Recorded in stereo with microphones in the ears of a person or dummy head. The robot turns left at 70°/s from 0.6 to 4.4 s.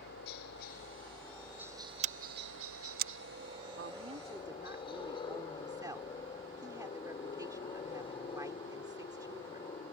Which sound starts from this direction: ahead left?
A helicopter, at 0.0 s.